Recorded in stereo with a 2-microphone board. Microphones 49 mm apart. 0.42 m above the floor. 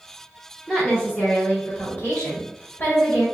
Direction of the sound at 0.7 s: 15° left (ahead or behind).